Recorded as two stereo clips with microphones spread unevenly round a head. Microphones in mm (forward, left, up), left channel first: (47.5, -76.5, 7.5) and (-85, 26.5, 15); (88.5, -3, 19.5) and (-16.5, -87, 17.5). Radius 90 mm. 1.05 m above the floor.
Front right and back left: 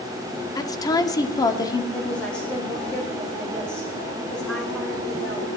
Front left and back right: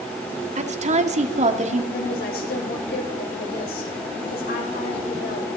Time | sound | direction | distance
0.6 | a woman speaking | 105° right | 1.9 m
1.9 | a woman speaking | 50° left | 5 m